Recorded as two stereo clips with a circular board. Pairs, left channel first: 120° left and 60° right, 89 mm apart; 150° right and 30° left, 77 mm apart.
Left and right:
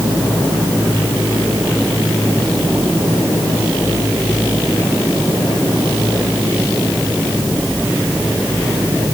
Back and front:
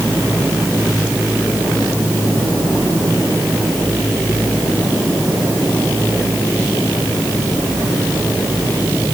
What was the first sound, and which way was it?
Only background noise.